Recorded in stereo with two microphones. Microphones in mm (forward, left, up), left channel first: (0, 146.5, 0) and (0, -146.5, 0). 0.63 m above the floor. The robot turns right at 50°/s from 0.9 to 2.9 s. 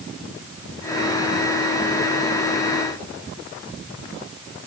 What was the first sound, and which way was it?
Only background noise.